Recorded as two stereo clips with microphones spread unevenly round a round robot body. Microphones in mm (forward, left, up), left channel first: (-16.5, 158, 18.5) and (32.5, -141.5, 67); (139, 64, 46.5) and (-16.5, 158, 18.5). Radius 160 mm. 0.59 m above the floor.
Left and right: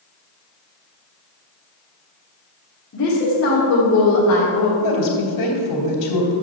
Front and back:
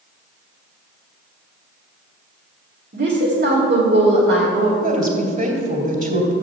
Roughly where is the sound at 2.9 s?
Behind left.